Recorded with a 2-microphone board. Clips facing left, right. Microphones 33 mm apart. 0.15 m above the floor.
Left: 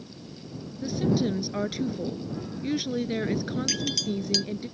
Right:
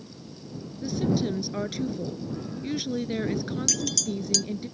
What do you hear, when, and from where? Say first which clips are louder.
0.8 s a woman speaking: left 1 dB; 5° left (ahead or behind)
3.7 s a clink: left 1 dB; 25° left (ahead or behind)